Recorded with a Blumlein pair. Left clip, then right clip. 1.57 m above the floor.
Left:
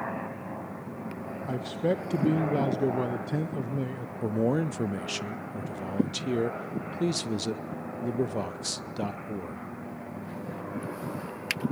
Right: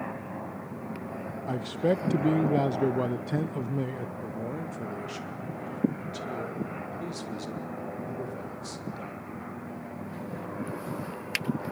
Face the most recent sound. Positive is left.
turn(degrees=30)